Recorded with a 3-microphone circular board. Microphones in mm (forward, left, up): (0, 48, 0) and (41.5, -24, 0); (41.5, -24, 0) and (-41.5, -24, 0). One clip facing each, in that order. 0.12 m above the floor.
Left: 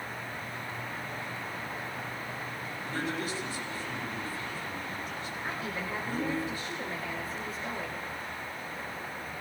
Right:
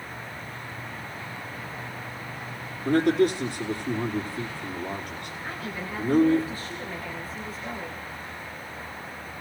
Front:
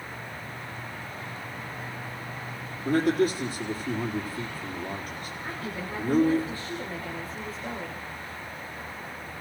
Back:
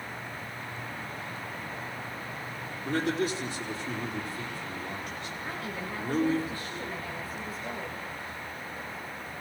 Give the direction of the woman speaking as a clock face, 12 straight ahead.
10 o'clock.